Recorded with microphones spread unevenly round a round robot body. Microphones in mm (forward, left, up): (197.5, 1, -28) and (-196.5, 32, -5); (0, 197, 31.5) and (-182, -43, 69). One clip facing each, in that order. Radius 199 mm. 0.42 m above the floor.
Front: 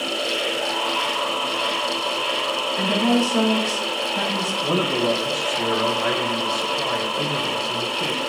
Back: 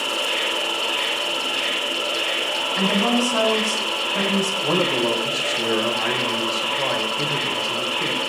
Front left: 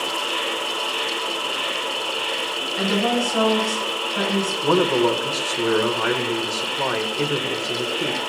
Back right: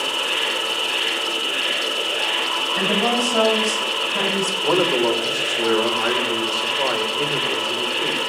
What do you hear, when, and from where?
0.0 s an insect: 170° right, 6.5 m
2.8 s a woman speaking: 160° right, 6 m
4.6 s a man speaking: 90° left, 1.7 m